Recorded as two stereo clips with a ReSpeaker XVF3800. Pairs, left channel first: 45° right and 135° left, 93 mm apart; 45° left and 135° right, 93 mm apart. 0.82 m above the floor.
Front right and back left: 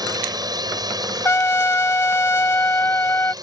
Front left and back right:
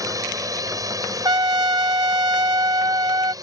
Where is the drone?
175° left; by 3.4 s straight behind.